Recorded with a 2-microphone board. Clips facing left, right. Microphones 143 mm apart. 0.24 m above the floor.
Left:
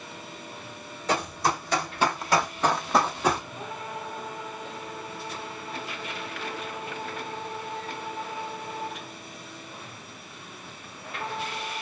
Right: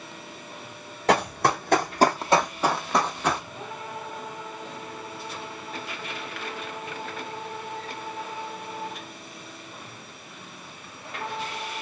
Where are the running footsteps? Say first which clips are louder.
Right 5 dB; 75° right (ahead or behind), 1.0 m; by 3.4 s 15° left (ahead or behind), 1.1 m.